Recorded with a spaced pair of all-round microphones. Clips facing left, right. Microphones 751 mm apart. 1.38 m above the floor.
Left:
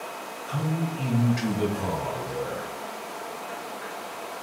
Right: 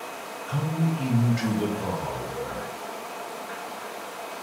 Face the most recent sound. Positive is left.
turn(degrees=80)